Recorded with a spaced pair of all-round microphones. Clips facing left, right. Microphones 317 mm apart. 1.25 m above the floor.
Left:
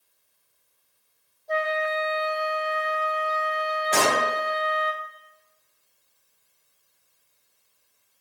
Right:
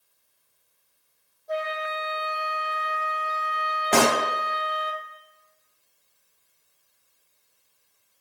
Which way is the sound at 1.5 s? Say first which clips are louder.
Left 4 dB; 10° right (ahead or behind).